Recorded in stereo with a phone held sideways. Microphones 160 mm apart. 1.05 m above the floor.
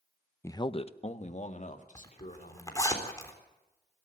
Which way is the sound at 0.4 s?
15° left (ahead or behind).